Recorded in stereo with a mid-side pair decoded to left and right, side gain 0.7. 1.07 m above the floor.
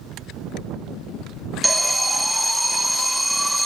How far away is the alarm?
About 1.3 m.